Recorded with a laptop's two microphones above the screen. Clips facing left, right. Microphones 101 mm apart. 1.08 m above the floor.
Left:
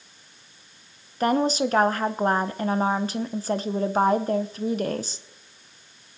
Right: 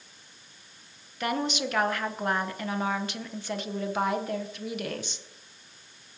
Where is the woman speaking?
35° left (ahead or behind), 0.8 m.